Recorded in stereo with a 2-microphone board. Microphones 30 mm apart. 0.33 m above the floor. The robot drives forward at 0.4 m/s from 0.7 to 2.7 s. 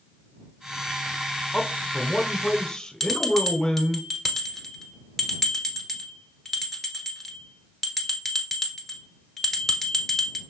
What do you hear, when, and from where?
1.5 s a man speaking: 30° left (ahead or behind), 1.2 m; by 4.0 s 25° left (ahead or behind), 1.3 m
3.0 s a bell: 10° left (ahead or behind), 1.1 m